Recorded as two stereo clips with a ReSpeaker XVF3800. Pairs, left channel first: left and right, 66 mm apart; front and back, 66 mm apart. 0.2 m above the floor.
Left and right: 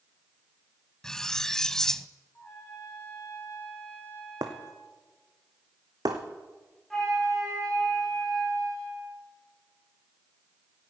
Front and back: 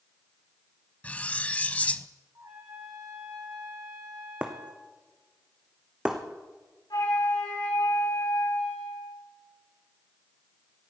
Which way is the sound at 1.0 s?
20° left.